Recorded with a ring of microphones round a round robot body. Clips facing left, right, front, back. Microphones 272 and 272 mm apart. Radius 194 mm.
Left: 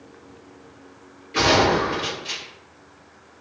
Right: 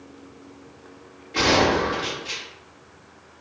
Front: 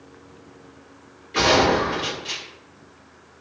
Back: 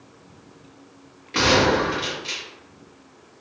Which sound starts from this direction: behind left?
A gunshot, at 1.3 s.